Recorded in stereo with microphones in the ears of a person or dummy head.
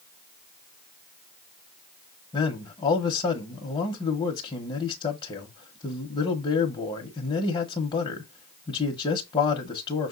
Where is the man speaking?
20° left (ahead or behind), 0.8 m.